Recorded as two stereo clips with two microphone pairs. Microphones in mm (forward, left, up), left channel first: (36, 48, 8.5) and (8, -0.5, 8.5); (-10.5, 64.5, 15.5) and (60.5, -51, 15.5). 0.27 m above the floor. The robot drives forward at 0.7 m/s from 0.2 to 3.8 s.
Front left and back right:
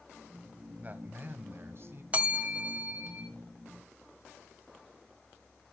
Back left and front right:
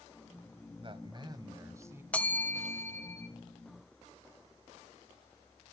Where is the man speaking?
80° right, 1.4 m; by 2.0 s 125° right, 1.5 m.